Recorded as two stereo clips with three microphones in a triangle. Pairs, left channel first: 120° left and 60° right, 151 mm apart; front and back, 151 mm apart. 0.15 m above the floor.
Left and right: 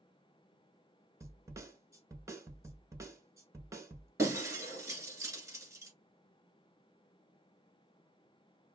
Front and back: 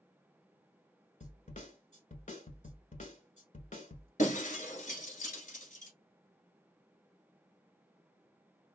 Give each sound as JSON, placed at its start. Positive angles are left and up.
{"t": 1.2, "sound": "a snare drum", "azimuth_deg": 5, "distance_m": 0.8}
{"t": 4.2, "sound": "breaking glass", "azimuth_deg": 10, "distance_m": 1.1}